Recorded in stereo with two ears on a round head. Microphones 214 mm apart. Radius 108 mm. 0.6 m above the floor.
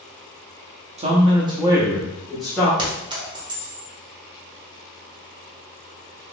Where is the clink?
20° right (ahead or behind), 1.2 m.